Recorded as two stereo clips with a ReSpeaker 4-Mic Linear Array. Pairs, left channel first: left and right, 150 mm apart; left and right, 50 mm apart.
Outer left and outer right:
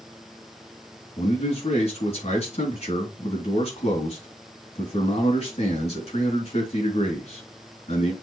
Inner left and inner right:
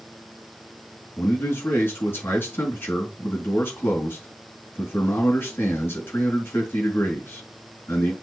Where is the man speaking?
45° left (ahead or behind), 3.5 m.